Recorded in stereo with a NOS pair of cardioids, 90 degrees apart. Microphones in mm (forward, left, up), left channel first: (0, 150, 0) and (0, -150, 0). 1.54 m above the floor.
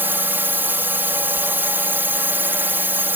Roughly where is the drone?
Ahead.